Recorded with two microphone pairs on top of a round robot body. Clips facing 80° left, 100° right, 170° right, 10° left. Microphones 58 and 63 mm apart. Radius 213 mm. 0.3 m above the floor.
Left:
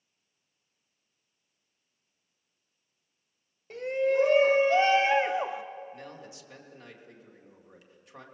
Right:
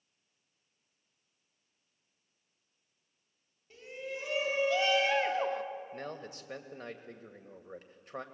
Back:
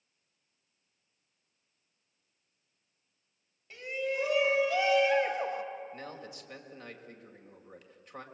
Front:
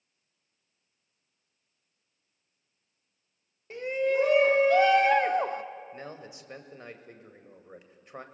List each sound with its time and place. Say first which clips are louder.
3.7 s a shout: left 16 dB, front 7 dB; 55° left, 2.0 m; by 5.6 s 5° right, 1.2 m
5.9 s a man speaking: right 3 dB, front 1 dB; 60° right, 2 m